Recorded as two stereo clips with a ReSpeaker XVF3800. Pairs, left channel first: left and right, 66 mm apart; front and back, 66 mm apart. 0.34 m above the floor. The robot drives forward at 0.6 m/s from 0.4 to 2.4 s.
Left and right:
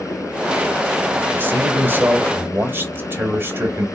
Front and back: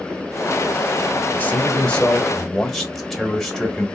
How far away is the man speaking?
About 1.7 m.